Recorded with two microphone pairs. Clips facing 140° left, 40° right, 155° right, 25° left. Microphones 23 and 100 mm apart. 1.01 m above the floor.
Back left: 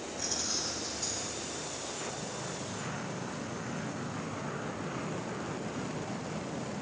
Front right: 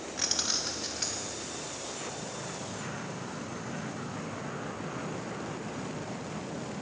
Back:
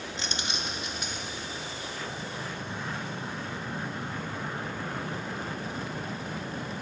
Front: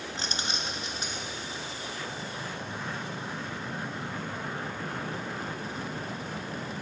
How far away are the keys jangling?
About 0.9 m.